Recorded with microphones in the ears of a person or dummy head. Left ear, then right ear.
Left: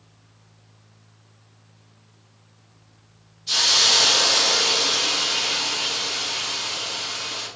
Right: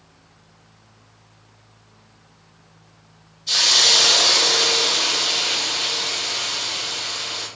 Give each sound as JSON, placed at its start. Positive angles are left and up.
{"t": 3.5, "sound": "a hiss", "side_deg": 0, "distance_m": 1.4}